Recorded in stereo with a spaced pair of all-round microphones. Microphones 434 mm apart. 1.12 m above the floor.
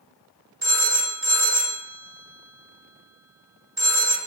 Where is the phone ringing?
55° right (ahead or behind), 0.8 m.